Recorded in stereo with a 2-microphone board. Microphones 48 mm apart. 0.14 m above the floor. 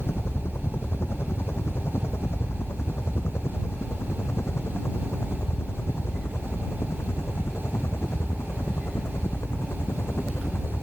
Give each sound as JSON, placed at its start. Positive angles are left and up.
{"t": 0.0, "sound": "a helicopter", "side_deg": 55}